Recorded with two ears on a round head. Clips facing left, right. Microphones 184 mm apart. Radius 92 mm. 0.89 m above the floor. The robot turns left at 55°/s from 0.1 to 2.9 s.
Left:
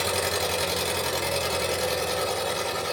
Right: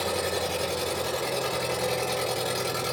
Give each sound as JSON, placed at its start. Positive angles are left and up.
{"t": 0.0, "sound": "an engine running", "azimuth_deg": 120, "distance_m": 4.0}